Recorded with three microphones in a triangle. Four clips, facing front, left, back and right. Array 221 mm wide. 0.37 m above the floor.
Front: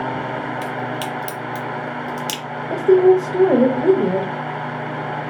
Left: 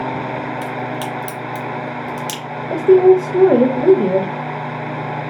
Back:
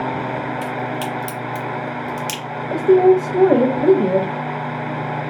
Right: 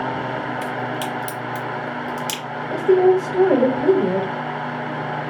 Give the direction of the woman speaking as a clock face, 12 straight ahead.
9 o'clock.